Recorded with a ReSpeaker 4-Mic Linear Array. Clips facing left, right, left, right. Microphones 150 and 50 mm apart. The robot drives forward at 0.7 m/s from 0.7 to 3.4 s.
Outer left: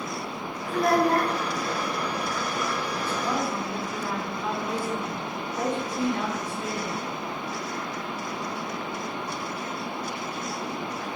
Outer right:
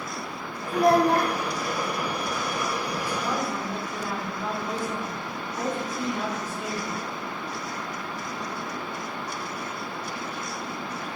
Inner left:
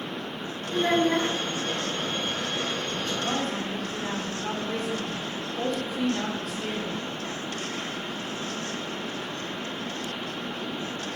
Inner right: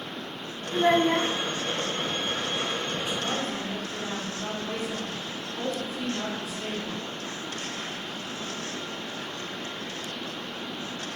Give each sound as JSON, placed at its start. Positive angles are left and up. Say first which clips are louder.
{"t": 0.7, "sound": "a child speaking", "louder": "outer right 2 dB, inner right 1 dB", "side_deg": -35, "distance_m": 0.8}
{"t": 3.2, "sound": "a woman speaking", "louder": "outer left 1 dB, inner left 2 dB", "side_deg": -5, "distance_m": 4.0}